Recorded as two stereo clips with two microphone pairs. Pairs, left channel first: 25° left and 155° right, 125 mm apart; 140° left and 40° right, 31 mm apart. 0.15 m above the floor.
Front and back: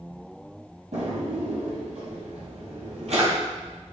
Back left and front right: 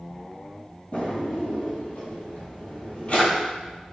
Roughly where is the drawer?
Behind.